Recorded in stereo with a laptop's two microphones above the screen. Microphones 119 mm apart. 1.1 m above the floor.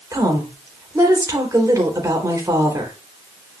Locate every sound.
0.1 s a woman speaking: 30° right (ahead or behind), 3.5 m